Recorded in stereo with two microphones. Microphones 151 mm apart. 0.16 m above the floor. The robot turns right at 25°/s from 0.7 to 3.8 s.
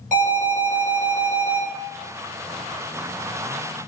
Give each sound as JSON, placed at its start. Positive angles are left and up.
{"t": 0.1, "sound": "an alarm", "side_deg": -55, "distance_m": 1.6}